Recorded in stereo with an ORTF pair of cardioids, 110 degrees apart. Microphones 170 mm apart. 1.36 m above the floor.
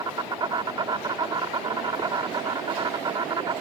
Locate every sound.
0.0 s an insect: 30° right